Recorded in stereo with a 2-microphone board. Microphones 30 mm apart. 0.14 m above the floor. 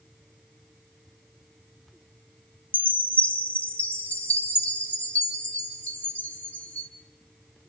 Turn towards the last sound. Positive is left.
turn(degrees=55)  # may be behind; listen again after turning